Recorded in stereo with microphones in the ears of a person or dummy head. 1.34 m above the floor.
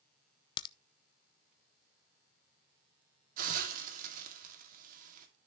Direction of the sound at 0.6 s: 30° left (ahead or behind).